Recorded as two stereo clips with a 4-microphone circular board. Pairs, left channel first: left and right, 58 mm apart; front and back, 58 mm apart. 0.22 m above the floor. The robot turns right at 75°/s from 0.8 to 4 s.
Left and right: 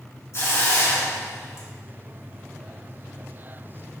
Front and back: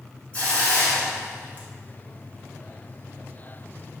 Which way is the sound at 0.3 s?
60° left.